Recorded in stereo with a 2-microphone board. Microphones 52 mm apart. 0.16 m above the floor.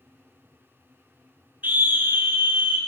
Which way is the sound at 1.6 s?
40° right (ahead or behind).